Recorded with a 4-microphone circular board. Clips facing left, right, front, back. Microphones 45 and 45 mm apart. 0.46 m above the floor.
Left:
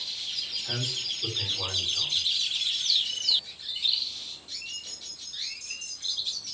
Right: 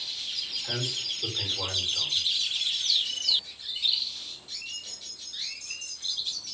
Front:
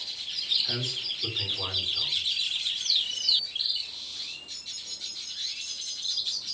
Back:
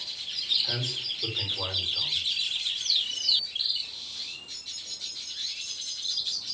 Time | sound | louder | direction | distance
0.6 | a man speaking | right 1 dB, even | 145° right | 1.6 m